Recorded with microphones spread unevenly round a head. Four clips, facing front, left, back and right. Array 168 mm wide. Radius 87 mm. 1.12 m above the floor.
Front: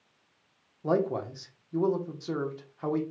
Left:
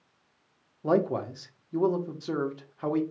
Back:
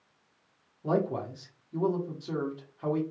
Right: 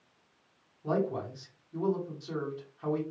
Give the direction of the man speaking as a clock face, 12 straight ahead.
10 o'clock.